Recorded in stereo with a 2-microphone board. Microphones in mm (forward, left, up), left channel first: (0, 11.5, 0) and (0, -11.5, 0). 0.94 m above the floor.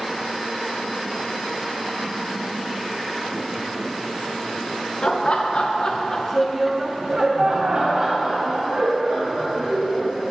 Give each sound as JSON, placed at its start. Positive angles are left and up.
{"t": 5.0, "sound": "laughter", "side_deg": 55, "distance_m": 1.1}